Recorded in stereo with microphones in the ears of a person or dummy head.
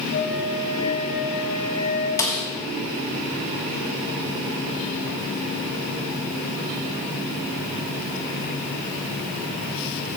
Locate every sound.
0.1 s a flute: 55° left (ahead or behind), 2.5 m
2.2 s a snare drum: 20° left (ahead or behind), 1.4 m